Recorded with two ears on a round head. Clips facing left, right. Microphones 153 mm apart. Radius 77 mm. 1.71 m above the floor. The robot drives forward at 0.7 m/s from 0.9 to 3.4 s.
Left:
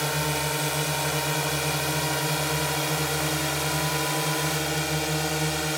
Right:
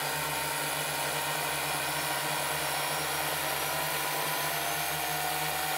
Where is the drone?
50° left (ahead or behind).